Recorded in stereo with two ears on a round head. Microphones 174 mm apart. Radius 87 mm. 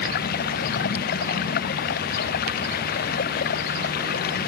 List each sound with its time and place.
0.0 s running water: 50° left (ahead or behind)